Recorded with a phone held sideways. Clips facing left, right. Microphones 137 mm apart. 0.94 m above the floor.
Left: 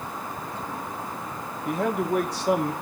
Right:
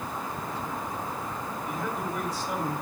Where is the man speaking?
75° left (ahead or behind), 1.8 m.